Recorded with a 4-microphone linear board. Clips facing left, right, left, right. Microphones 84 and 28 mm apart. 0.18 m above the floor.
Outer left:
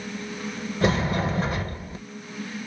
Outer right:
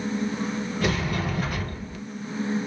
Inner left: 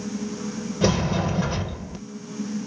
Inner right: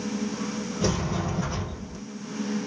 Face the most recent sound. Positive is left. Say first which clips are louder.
# outer left 5 dB, inner left 6 dB
turn(degrees=25)  # may be behind; listen again after turning